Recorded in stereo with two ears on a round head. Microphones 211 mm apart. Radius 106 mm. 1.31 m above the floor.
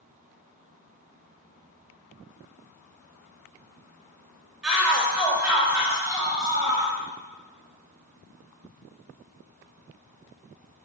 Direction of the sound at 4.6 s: Centre (ahead or behind).